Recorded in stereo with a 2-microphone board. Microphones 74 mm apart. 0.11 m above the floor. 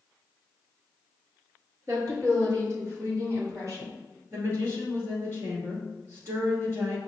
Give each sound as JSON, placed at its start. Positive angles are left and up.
{"t": 1.9, "sound": "a woman speaking", "side_deg": -40, "distance_m": 1.7}
{"t": 4.3, "sound": "a woman speaking", "side_deg": -35, "distance_m": 1.6}